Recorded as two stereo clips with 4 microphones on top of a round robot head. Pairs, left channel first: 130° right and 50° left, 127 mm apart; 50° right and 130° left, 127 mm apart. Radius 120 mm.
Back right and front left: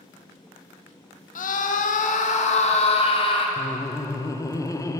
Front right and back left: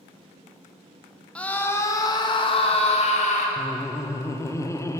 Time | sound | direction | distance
1.4 | a scream | 135° right | 1.2 m
3.6 | laughter | 95° right | 0.8 m